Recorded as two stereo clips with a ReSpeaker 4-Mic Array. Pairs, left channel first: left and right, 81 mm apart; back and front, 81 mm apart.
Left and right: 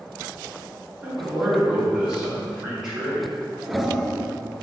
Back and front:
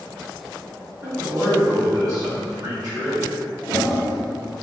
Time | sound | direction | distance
1.0 | a man speaking | 35° right | 1.4 m
3.6 | a toilet flushing | 175° right | 0.7 m